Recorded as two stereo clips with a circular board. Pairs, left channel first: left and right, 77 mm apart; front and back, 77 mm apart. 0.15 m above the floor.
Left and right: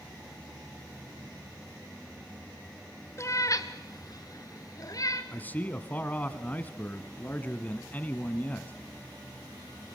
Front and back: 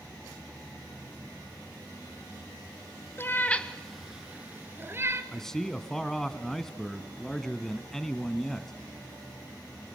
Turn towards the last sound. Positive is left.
turn(degrees=75)